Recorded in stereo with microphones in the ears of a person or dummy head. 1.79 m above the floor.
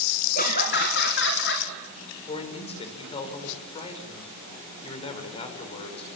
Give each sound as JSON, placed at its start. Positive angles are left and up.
{"t": 0.3, "sound": "laughter", "side_deg": 50, "distance_m": 1.7}
{"t": 2.3, "sound": "a man speaking", "side_deg": 35, "distance_m": 5.5}